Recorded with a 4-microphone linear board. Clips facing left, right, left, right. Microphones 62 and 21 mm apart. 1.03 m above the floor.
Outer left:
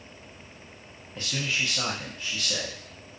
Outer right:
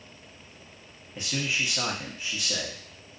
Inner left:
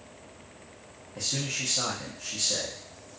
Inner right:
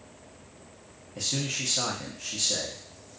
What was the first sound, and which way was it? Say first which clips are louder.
A man speaking: even, inner right 1 dB; 20° right (ahead or behind).